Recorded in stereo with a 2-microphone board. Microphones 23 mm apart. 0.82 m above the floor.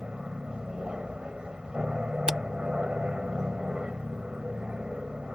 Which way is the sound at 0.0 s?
35° right (ahead or behind).